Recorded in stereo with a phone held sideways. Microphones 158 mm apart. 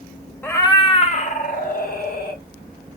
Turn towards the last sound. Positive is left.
turn(degrees=70)  # may be behind; listen again after turning